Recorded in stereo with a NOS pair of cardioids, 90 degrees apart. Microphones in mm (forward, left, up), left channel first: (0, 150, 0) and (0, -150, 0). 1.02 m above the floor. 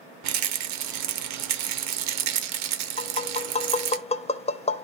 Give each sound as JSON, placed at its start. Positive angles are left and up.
{"t": 0.2, "sound": "a rattle", "azimuth_deg": -65, "distance_m": 0.8}
{"t": 3.0, "sound": "tapping", "azimuth_deg": 20, "distance_m": 0.6}